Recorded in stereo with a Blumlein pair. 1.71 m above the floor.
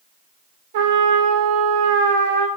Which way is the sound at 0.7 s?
60° right.